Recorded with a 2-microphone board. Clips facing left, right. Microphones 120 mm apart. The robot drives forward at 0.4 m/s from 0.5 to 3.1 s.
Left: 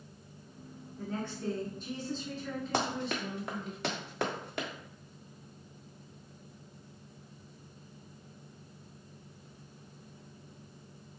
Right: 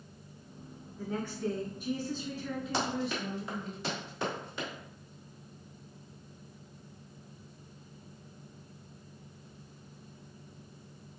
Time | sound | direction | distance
1.0 | a woman speaking | 10° right (ahead or behind) | 1.6 m
2.7 | running footsteps | 60° left (ahead or behind) | 1.1 m